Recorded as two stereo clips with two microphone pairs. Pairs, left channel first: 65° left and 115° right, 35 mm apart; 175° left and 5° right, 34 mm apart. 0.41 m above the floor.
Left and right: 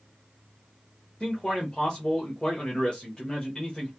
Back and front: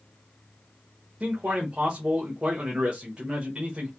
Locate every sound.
1.2 s a man speaking: 25° left, 1.2 m